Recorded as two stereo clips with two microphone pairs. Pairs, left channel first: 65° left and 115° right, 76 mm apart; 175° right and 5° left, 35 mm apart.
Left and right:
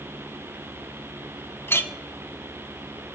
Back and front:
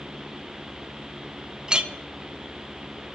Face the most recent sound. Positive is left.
turn(degrees=45)